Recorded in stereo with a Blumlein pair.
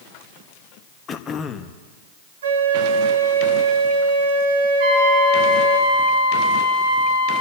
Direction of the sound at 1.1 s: 25° left.